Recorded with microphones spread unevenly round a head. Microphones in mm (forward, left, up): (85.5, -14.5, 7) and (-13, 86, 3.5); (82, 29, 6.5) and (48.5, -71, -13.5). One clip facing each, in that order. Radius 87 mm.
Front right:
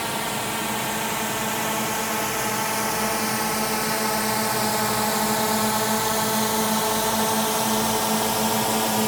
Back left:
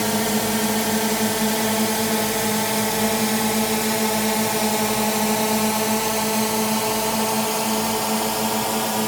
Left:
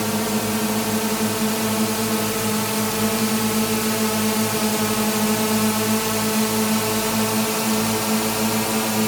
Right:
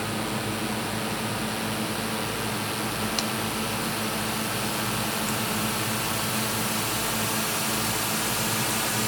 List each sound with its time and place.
0.0 s a drone: 100° left; by 9.1 s 45° left